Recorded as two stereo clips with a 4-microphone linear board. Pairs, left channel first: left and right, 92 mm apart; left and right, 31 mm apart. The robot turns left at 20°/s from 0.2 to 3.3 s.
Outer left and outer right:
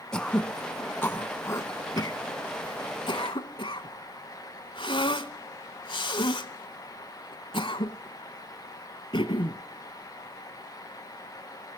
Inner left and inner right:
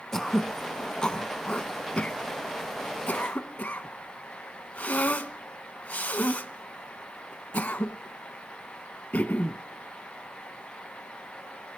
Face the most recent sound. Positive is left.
turn(degrees=70)  # may be behind; listen again after turning